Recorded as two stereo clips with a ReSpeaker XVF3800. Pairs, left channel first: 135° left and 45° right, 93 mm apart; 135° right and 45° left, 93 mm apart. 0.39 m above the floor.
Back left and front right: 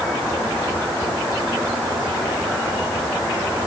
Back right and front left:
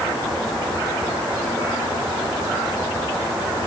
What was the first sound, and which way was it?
Only background noise.